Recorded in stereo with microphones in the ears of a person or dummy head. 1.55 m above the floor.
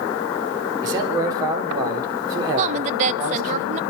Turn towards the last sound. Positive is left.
turn(degrees=-45)  # may be behind; listen again after turning